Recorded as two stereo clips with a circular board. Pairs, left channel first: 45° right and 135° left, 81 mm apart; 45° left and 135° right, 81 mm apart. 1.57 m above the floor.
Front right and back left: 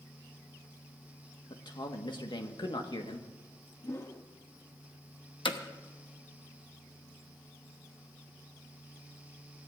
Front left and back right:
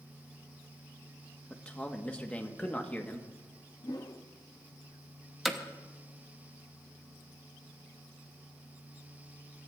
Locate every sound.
1.5 s a man speaking: 30° right, 1.5 m
3.8 s a whoosh: 10° left, 0.9 m
5.5 s hammering: 50° right, 1.1 m